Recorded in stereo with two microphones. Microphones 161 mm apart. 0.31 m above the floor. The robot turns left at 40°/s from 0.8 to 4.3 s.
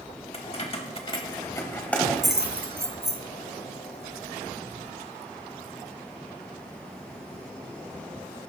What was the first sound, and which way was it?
Keys jangling, 40° left (ahead or behind).